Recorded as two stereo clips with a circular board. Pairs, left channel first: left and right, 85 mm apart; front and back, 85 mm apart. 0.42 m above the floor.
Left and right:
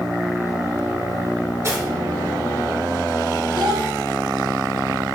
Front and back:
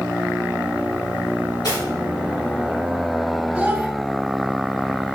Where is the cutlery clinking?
35° right, 4.5 m.